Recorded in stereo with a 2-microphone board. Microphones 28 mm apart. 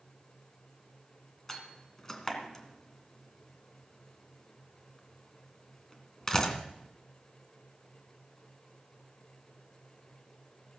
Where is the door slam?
20° left (ahead or behind), 2 m.